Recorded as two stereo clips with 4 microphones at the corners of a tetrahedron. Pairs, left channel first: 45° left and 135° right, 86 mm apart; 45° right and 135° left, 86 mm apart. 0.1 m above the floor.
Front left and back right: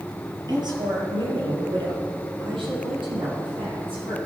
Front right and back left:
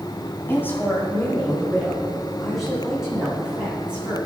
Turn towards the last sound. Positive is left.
turn(degrees=-150)